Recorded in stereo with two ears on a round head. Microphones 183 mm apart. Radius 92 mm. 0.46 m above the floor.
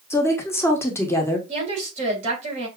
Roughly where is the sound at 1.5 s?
Right.